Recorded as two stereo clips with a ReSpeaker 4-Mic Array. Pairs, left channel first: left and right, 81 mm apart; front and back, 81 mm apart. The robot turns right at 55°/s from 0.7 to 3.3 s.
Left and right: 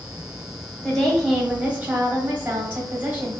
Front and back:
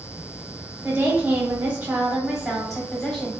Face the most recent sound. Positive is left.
turn(degrees=-55)